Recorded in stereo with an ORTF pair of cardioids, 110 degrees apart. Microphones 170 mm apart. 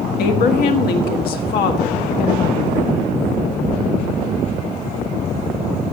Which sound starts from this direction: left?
A woman speaking, at 0.2 s.